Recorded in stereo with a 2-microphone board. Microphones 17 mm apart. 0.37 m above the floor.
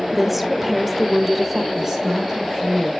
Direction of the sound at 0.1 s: 5° right (ahead or behind).